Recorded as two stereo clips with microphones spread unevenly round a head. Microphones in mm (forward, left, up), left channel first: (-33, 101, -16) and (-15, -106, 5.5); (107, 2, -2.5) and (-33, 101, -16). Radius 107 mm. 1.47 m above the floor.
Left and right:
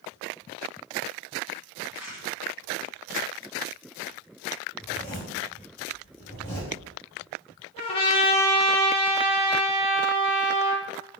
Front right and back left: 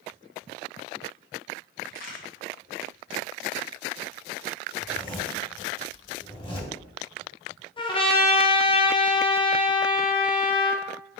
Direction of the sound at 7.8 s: 25° left.